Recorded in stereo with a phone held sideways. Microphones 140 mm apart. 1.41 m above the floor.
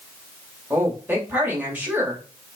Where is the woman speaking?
15° right (ahead or behind), 3.5 m.